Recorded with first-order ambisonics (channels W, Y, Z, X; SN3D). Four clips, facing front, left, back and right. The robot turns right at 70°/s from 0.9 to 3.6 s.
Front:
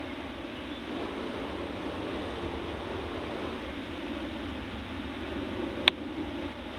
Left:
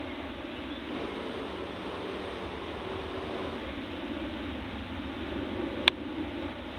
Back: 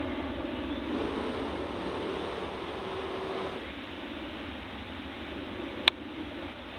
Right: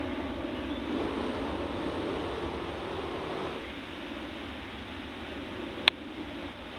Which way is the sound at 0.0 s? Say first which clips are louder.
Right 4 dB, back 4 dB; 135° right.